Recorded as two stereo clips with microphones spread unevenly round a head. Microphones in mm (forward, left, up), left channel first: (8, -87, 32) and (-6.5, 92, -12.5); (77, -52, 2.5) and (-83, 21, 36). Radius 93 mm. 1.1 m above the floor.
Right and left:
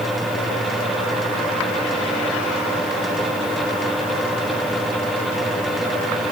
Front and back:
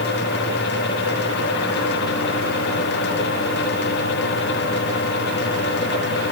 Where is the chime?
No chime in this recording.